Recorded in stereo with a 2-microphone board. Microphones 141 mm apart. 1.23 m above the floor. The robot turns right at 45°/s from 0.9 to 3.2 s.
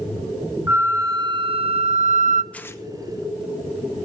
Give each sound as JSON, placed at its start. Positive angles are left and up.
{"t": 0.7, "sound": "a flute", "azimuth_deg": -160, "distance_m": 0.5}
{"t": 2.5, "sound": "tearing paper", "side_deg": 10, "distance_m": 0.8}